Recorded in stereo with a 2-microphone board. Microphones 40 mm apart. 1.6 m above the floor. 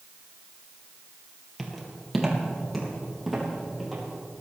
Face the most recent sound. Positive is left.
turn(degrees=0)  # may be behind; listen again after turning